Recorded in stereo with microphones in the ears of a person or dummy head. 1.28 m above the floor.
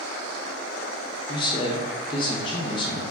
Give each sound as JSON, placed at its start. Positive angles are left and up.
{"t": 1.3, "sound": "a man speaking", "side_deg": 25, "distance_m": 0.6}